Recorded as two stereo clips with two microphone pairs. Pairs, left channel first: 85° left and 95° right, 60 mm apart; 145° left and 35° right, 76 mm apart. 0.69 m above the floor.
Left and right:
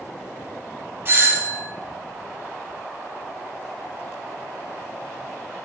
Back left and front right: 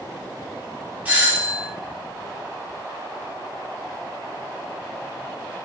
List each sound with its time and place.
1.1 s a doorbell: 95° right, 1.2 m